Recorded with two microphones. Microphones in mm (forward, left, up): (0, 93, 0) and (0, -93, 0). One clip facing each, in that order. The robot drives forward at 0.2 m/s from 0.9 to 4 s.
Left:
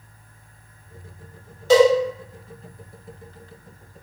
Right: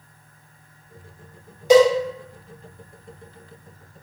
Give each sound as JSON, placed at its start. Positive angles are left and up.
{"t": 1.7, "sound": "a cowbell", "side_deg": -15, "distance_m": 0.9}